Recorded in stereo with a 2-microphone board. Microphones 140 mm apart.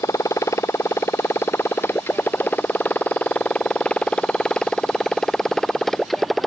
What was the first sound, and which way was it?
A motorcycle, 25° left (ahead or behind).